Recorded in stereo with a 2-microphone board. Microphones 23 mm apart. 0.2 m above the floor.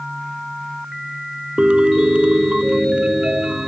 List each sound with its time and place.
1.6 s a piano: 55° right (ahead or behind)